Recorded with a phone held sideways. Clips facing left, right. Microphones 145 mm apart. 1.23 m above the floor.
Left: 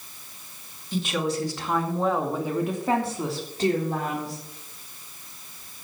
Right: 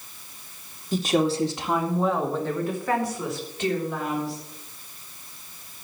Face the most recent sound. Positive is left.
turn(degrees=45)  # may be behind; listen again after turning